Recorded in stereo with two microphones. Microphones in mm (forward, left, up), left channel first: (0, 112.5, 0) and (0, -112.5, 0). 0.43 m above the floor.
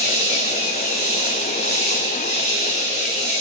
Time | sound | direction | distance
0.0 | an insect | 45° right (ahead or behind) | 2 m